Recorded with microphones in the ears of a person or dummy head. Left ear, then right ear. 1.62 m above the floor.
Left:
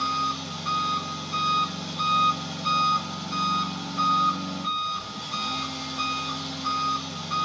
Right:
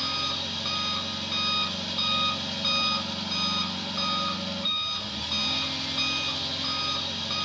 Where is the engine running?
60° right (ahead or behind), 5.5 m.